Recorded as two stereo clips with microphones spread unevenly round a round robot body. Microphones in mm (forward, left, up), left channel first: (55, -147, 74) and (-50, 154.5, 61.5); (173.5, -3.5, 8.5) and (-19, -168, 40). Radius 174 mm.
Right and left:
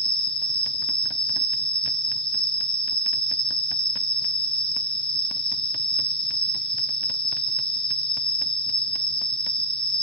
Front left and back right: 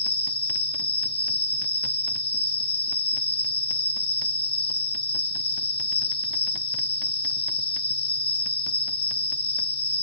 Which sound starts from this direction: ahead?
An insect, at 0.0 s.